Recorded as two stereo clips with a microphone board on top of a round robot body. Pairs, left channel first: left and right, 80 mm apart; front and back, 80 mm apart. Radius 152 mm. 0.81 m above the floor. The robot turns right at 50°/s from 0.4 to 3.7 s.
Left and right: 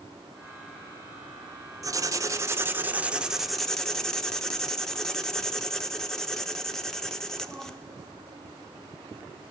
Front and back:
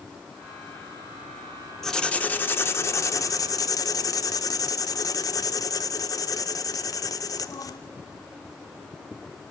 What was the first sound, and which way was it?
Writing, 85° right.